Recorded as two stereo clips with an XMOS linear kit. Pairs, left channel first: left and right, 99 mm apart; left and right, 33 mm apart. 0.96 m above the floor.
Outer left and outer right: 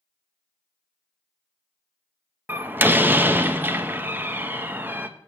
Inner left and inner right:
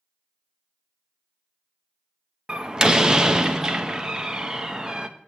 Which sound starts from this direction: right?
A door slam, at 2.5 s.